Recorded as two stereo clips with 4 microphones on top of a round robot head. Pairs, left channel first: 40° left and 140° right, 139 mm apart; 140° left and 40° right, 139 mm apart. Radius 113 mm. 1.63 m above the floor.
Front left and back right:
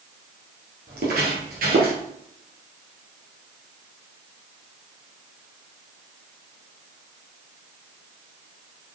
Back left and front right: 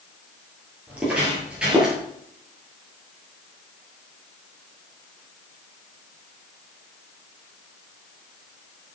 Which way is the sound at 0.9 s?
120° right.